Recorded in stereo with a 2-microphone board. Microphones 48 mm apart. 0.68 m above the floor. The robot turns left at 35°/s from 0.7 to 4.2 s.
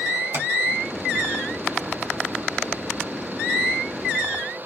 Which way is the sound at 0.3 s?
75° right (ahead or behind).